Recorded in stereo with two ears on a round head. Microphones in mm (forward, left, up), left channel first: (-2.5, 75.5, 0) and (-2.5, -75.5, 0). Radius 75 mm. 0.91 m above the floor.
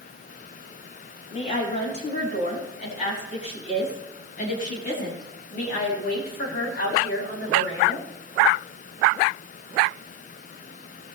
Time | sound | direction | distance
1.3 | a woman speaking | 40° left (ahead or behind) | 7 m